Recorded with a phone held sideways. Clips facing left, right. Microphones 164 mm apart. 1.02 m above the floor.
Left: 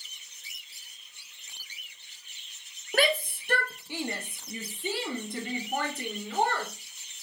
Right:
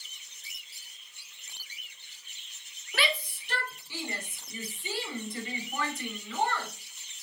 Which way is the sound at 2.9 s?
50° left (ahead or behind).